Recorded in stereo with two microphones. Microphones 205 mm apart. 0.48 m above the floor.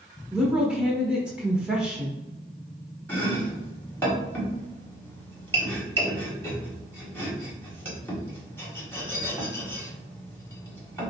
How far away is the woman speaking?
About 0.9 m.